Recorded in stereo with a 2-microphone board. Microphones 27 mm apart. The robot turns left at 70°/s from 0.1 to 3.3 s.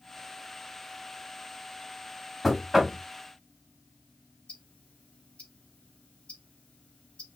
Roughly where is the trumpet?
I don't hear a trumpet.